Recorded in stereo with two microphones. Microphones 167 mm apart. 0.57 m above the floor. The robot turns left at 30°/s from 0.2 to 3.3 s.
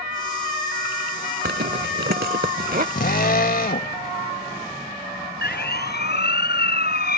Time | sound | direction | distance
1.4 | a zipper | 80° right | ?
3.0 | a drill | 70° left (ahead or behind) | ?
5.4 | a siren | 80° left | ?